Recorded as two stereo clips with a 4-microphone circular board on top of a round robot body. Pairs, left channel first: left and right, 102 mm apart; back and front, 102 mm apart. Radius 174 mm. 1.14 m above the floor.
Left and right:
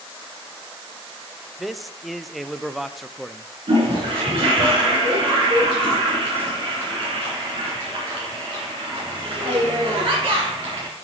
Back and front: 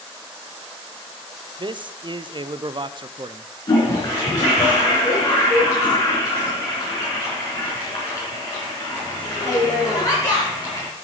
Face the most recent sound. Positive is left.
turn(degrees=-125)